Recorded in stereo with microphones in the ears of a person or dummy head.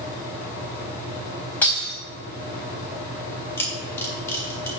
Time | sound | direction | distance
0.0 | a fan | 40° left (ahead or behind) | 3.5 m
1.6 | breaking glass | 10° left (ahead or behind) | 3.5 m
3.6 | a camera shutter | 15° left (ahead or behind) | 1.7 m